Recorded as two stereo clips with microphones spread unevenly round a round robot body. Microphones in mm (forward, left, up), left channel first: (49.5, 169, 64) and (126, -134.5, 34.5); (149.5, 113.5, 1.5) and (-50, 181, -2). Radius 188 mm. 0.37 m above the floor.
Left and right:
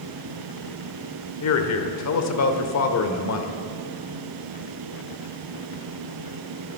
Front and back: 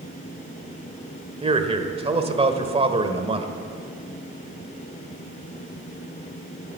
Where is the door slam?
I don't hear a door slam.